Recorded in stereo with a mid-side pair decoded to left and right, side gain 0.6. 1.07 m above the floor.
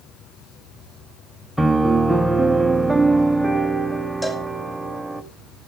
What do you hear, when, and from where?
1.6 s a piano: 5° right, 1.1 m
4.2 s a cowbell: 10° left, 2 m